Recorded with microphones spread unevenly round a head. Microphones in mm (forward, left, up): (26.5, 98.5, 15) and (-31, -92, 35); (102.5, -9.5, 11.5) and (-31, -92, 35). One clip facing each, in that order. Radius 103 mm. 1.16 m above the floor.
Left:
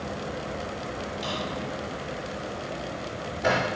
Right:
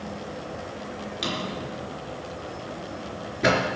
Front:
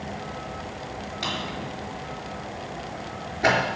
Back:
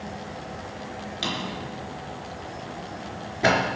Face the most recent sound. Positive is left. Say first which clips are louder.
# right 3 dB, back 1 dB
turn(degrees=-90)